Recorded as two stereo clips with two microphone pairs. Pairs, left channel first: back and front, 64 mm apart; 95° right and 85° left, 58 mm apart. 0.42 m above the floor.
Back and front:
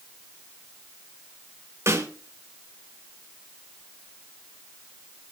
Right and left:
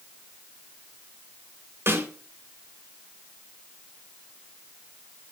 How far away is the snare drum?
About 3 m.